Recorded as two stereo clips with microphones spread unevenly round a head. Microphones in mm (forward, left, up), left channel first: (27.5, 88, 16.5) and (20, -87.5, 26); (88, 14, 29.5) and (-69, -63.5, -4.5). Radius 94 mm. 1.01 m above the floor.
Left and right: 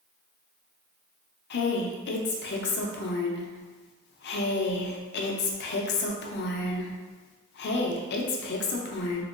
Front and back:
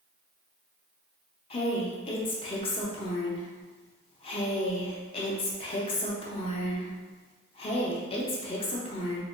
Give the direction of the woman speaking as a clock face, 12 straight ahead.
9 o'clock.